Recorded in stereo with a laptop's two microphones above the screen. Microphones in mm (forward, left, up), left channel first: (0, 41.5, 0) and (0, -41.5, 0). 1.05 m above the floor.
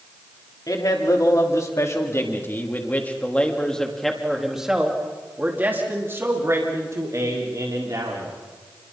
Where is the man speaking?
50° left (ahead or behind), 3 m; by 8.3 s 50° right (ahead or behind), 3.5 m.